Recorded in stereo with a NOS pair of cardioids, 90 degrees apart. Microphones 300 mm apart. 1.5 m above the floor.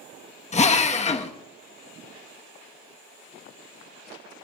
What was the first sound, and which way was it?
A drill, 25° left.